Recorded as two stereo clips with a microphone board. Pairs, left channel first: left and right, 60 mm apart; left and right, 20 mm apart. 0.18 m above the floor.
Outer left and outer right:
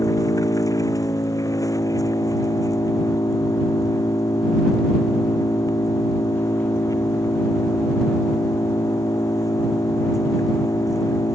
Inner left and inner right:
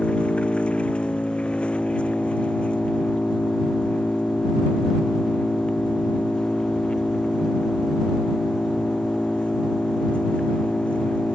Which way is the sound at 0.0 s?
75° left (ahead or behind).